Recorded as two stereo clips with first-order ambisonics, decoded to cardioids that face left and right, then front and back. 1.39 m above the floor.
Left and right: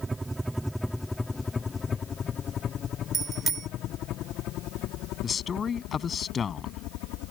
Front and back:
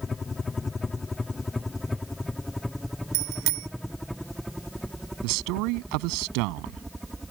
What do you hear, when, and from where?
0.0 s a helicopter: 35° right; by 7.3 s 95° left
3.1 s a bicycle bell: 155° right
5.2 s a man speaking: 160° left